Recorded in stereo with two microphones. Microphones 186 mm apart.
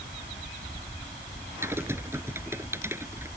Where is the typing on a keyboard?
15° right (ahead or behind).